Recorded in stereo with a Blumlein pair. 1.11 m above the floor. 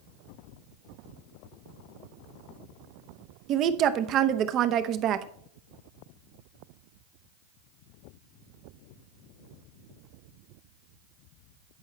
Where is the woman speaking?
35° right, 0.7 m.